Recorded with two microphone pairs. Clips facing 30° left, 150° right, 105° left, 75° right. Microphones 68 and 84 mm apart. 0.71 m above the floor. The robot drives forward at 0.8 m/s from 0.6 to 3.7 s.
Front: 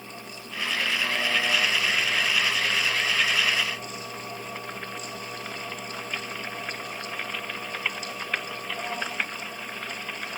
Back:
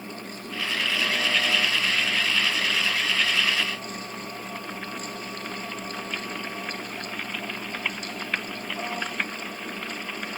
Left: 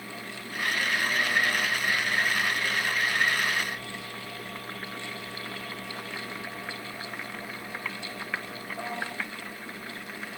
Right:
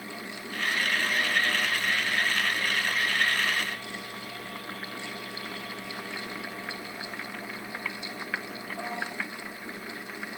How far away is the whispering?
No whispering in this recording.